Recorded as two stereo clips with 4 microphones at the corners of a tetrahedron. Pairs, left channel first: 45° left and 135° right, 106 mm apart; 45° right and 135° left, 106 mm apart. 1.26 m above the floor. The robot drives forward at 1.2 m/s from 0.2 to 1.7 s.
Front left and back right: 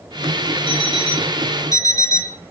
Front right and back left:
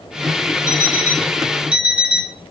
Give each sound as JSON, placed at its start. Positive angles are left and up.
{"t": 0.7, "sound": "an alarm clock", "azimuth_deg": 15, "distance_m": 1.6}